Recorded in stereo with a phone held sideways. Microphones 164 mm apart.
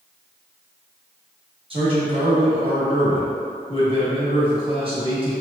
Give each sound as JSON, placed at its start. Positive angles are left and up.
{"t": 1.7, "sound": "a man speaking", "side_deg": -35, "distance_m": 1.3}